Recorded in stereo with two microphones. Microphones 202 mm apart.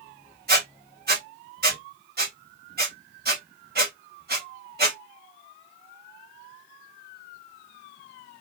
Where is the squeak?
45° right (ahead or behind), 1.2 m.